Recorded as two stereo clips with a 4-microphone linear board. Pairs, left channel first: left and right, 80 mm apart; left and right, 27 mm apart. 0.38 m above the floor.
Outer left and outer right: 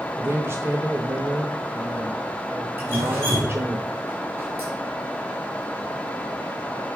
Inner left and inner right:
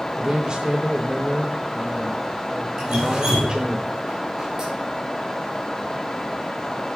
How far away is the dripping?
About 3.5 m.